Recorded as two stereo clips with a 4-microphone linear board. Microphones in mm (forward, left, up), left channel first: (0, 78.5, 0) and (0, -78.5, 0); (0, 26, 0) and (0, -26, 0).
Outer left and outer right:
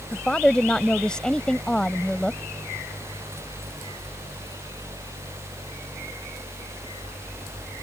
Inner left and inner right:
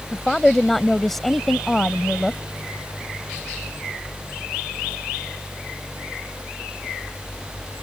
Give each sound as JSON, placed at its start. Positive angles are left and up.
{"t": 0.1, "sound": "a woman speaking", "side_deg": 5}